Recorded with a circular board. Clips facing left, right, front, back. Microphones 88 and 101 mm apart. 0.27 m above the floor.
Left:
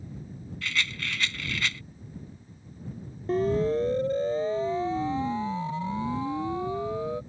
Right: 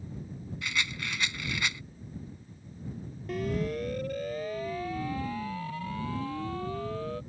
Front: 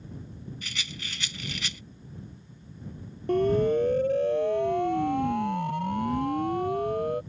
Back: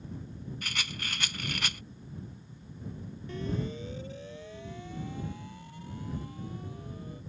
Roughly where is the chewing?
No chewing in this recording.